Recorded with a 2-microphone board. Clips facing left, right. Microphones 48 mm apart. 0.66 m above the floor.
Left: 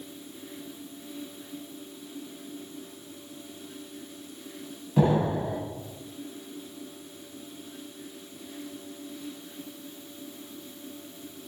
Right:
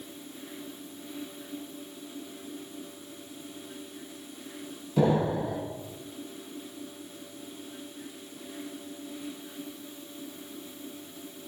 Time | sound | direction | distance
5.0 | an explosion | 25° left (ahead or behind) | 0.7 m